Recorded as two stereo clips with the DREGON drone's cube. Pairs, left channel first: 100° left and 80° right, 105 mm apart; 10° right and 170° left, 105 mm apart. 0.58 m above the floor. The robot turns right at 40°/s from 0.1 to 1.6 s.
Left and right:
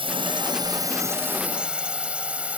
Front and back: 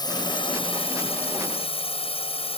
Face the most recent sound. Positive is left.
turn(degrees=0)